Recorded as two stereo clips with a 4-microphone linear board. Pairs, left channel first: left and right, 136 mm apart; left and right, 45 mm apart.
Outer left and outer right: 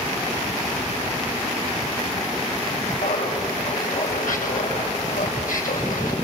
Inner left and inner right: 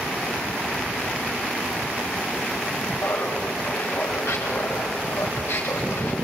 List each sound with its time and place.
3.0 s laughter: 85° left, 5.5 m